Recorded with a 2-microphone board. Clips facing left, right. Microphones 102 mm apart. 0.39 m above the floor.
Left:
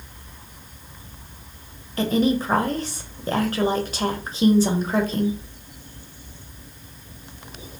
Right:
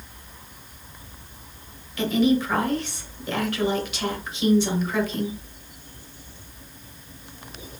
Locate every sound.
2.0 s a woman speaking: 40° left (ahead or behind), 1.2 m